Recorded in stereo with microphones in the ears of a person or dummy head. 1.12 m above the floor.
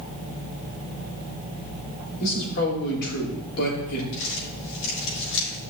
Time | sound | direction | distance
2.2 | a man speaking | 55° left (ahead or behind) | 4 m
4.1 | crumpling | 65° left (ahead or behind) | 4.5 m